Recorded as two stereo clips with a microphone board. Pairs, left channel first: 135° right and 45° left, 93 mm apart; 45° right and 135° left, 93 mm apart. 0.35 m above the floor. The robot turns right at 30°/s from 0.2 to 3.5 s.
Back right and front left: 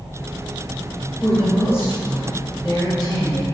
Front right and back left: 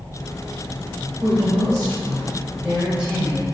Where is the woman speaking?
170° left, 1.4 m; by 3.4 s 120° right, 1.4 m.